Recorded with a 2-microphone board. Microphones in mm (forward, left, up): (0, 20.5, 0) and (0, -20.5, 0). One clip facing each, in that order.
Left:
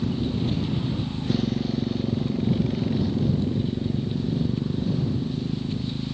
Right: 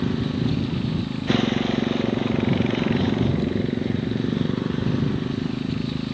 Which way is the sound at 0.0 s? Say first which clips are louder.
Right 2 dB; 65° right (ahead or behind).